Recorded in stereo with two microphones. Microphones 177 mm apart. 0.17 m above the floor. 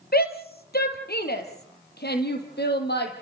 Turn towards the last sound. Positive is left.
turn(degrees=70)  # may be behind; listen again after turning